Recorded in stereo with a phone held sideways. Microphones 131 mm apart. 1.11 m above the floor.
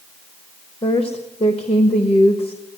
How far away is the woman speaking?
About 1.2 m.